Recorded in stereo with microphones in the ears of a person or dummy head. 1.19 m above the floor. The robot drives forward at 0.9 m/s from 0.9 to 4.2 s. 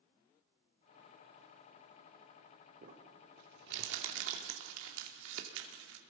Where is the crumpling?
55° right (ahead or behind), 3 m; by 6.0 s 80° right, 2.5 m.